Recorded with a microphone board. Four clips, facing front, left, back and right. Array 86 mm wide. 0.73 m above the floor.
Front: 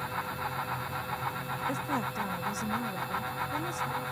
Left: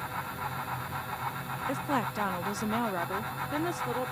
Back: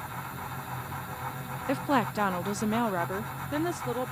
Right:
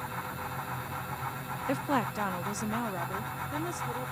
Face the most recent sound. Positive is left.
turn(degrees=155)